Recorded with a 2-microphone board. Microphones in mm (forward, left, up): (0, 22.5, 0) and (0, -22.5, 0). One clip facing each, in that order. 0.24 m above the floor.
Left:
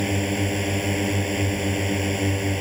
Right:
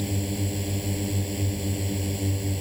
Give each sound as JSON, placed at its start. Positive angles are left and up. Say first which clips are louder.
{"t": 0.0, "sound": "a drone", "louder": "left 6 dB", "side_deg": 60}